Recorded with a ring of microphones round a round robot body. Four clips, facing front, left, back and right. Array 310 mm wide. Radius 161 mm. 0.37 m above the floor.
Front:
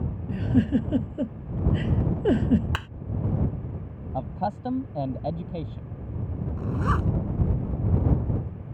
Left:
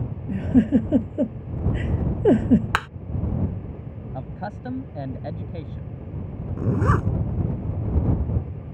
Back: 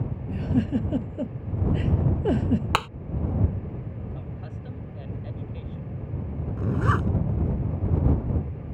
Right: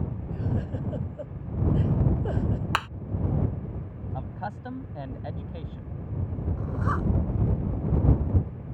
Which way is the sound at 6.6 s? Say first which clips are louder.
Left 8 dB, back 2 dB; 100° left.